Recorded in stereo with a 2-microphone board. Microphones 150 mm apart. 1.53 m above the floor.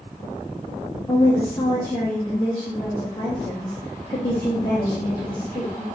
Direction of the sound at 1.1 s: 30° left (ahead or behind).